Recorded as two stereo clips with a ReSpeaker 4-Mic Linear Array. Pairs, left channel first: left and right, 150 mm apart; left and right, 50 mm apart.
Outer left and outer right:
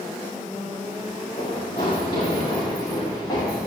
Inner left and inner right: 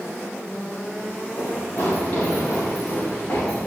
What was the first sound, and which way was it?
Running footsteps, 30° left (ahead or behind).